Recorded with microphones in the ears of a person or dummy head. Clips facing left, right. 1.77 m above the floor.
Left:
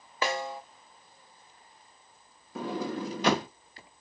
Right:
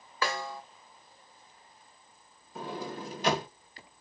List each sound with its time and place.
0.2 s a snare drum: 20° left (ahead or behind), 0.5 m
2.5 s a sliding door: 65° left (ahead or behind), 0.6 m